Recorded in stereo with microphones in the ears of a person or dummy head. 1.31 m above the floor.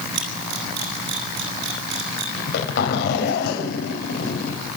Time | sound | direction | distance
0.1 | a camera shutter | 70° right (ahead or behind) | 9.5 m
2.4 | a zipper | 55° left (ahead or behind) | 5.5 m